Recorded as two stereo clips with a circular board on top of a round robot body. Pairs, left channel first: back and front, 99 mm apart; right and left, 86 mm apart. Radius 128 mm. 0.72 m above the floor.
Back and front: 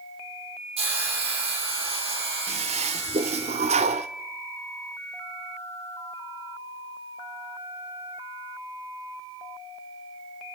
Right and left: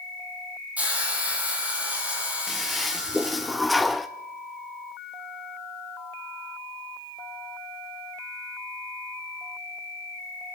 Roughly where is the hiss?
Ahead.